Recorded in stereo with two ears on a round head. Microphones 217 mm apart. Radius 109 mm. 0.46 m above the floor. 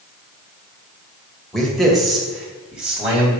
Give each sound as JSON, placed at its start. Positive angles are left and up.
{"t": 1.5, "sound": "a man speaking", "side_deg": 0, "distance_m": 2.0}